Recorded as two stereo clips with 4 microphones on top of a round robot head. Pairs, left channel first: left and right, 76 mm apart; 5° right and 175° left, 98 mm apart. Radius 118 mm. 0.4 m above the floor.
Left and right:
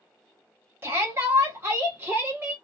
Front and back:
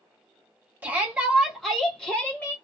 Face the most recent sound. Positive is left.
turn(degrees=-55)